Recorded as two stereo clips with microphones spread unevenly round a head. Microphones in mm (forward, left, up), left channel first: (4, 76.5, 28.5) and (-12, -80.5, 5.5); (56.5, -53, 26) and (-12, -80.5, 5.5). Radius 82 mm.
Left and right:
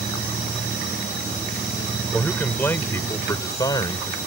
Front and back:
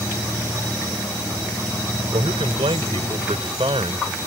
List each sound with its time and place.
2.1 s a man speaking: 165° left; by 4.2 s 150° left